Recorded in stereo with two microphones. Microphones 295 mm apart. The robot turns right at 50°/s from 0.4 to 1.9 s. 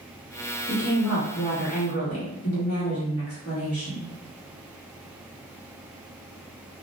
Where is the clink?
I don't hear a clink.